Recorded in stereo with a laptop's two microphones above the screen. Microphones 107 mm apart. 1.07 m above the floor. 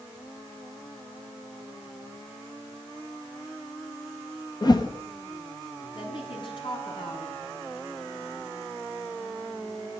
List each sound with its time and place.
4.6 s a whoosh: 40° left (ahead or behind), 1.4 m
6.0 s a woman speaking: 50° left (ahead or behind), 8 m